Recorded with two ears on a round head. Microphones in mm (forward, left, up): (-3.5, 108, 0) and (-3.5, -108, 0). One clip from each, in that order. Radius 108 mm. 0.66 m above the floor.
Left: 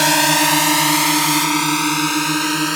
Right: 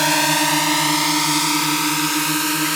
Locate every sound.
0.0 s a drone: 5° left (ahead or behind); by 2.8 s centre (ahead or behind)